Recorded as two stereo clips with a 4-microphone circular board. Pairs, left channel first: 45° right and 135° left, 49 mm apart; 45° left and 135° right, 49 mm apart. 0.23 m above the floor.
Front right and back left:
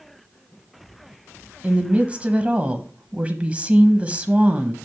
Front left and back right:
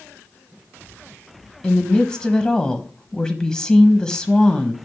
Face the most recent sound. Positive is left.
turn(degrees=105)